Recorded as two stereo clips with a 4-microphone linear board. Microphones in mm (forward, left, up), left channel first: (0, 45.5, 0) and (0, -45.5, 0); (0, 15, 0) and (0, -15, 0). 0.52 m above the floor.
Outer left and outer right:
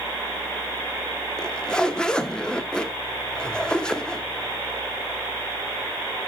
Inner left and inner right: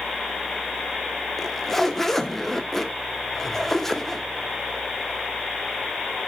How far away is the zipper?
About 0.9 m.